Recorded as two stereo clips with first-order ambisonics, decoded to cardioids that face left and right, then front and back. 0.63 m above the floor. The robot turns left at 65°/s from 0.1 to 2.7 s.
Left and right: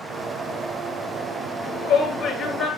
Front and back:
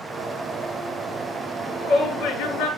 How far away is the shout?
About 7 m.